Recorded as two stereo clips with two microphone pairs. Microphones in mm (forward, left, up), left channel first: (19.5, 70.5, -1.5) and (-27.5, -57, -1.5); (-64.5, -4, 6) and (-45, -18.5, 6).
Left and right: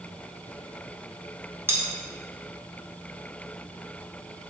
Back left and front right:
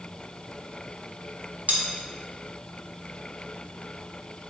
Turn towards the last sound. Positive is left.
turn(degrees=-40)